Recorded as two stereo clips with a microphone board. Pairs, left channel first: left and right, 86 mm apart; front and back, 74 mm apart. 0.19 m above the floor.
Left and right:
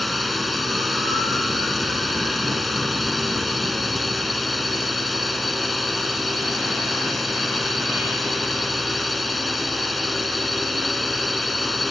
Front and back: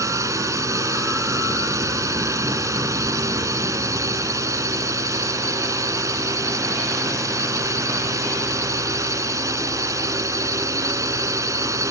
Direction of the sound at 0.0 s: Straight behind.